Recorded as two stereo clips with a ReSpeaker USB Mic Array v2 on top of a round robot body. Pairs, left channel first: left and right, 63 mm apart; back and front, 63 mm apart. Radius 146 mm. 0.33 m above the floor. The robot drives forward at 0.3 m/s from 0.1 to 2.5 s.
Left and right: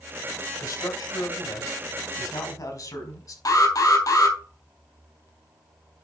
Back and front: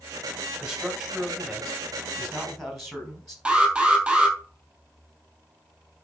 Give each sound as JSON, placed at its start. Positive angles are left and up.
{"t": 0.6, "sound": "a man speaking", "azimuth_deg": 80, "distance_m": 3.5}
{"t": 3.5, "sound": "an alarm", "azimuth_deg": 75, "distance_m": 3.5}